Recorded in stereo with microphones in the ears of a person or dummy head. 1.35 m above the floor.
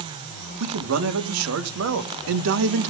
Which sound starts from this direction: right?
A man speaking, at 0.6 s.